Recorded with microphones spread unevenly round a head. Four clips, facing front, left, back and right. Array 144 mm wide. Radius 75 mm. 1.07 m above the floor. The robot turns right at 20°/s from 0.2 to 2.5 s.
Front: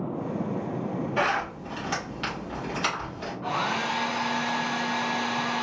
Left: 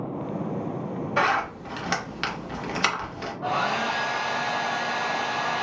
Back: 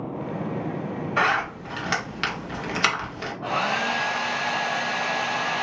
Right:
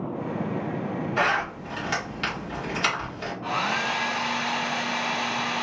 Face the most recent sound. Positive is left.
turn(degrees=135)